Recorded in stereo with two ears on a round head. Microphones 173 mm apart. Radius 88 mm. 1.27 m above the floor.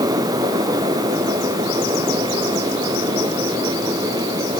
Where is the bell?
No bell in this recording.